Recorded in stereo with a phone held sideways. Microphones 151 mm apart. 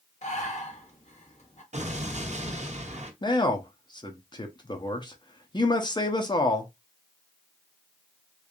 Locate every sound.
0.2 s breathing: 50° left (ahead or behind), 1.1 m
1.7 s an explosion: 50° right (ahead or behind), 0.7 m
3.2 s a man speaking: 30° left (ahead or behind), 0.8 m